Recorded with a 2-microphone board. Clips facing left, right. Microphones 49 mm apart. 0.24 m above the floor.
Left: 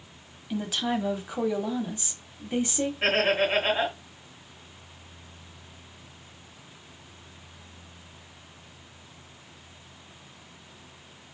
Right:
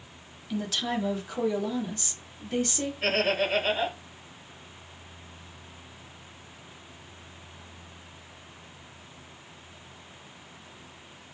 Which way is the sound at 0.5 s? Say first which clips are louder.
Left 2 dB; 15° left (ahead or behind).